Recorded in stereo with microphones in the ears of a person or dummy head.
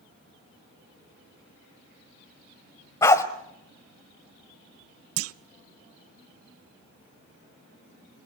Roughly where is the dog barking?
Centre.